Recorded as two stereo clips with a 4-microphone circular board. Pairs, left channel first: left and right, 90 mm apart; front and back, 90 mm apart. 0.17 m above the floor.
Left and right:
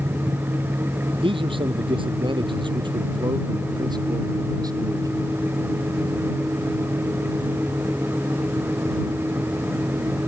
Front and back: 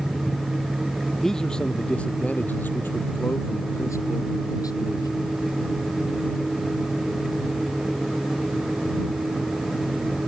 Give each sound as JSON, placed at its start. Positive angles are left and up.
{"t": 1.2, "sound": "a man speaking", "azimuth_deg": -85}